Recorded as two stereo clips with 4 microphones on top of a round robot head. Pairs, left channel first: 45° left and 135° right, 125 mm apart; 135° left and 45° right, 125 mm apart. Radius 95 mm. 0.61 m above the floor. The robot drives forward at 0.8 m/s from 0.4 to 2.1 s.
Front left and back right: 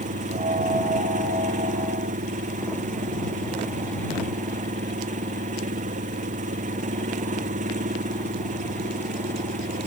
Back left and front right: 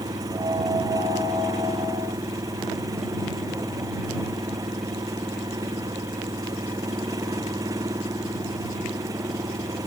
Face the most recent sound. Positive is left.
turn(degrees=-110)